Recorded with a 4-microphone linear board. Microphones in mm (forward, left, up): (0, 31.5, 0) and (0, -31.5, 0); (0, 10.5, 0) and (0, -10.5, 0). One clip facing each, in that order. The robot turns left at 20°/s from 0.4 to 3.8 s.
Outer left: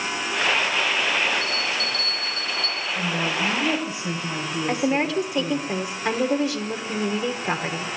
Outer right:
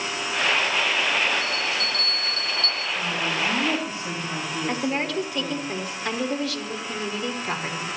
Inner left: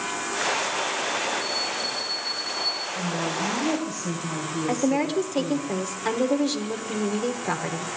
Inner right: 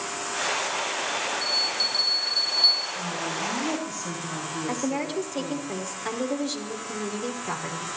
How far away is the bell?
About 9 m.